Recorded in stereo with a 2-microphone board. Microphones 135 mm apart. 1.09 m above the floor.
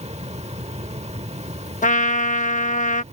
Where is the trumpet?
65° left (ahead or behind).